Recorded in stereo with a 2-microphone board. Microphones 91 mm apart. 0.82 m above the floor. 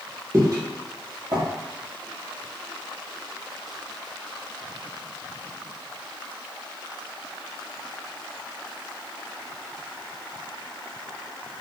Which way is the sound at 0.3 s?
35° right (ahead or behind).